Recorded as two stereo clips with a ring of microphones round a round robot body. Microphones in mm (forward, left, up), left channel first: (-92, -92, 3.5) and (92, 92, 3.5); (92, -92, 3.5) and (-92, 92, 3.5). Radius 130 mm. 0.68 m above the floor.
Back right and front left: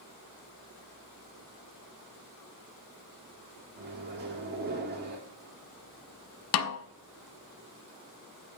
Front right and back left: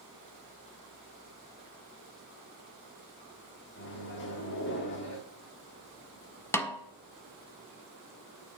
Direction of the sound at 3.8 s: 5° right.